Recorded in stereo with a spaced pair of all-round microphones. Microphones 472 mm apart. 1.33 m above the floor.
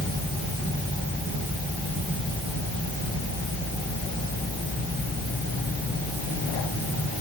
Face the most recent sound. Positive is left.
No sound to turn to.